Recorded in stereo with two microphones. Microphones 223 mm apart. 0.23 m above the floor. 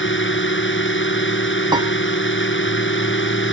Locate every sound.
0.0 s a drone: 60° left (ahead or behind)
1.7 s a piano: 20° right (ahead or behind)